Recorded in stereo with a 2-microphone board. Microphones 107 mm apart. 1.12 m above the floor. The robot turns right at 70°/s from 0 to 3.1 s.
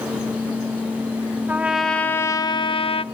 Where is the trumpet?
20° right, 0.6 m; by 3.0 s 85° left, 0.6 m.